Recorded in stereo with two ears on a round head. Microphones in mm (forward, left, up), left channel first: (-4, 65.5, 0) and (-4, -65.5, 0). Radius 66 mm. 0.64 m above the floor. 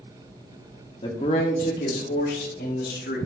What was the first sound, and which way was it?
A man speaking, 35° left (ahead or behind).